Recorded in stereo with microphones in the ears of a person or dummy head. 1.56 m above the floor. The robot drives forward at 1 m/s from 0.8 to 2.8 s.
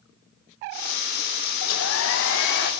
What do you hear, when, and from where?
1.6 s a hair dryer: 75° left (ahead or behind), 1.2 m; by 2.7 s 45° left (ahead or behind), 1.6 m